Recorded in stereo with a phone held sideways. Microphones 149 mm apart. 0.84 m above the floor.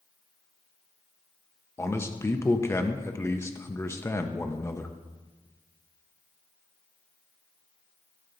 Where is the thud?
No thud in this recording.